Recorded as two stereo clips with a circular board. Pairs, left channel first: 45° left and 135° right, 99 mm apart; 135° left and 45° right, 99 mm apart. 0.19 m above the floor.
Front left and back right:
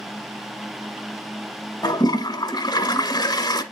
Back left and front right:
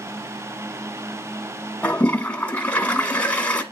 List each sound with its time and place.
1.8 s a toilet flushing: 60° left, 0.9 m